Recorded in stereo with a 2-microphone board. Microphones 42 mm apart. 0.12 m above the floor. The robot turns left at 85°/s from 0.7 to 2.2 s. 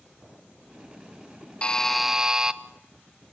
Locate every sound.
1.6 s a buzzer: 30° left, 0.6 m; by 2.6 s 25° right, 0.6 m